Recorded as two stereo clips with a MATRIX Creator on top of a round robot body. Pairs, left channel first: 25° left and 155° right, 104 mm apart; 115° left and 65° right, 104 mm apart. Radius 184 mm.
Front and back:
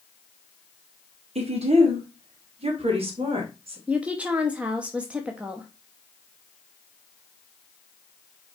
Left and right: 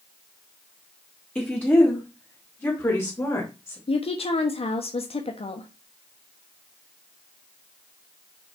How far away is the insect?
I don't hear an insect.